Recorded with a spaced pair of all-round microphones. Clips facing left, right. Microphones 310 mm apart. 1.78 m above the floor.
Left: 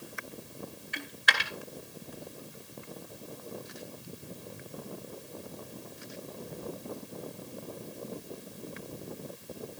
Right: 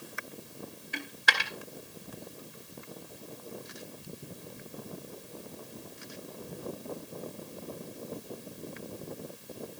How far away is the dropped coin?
About 2 m.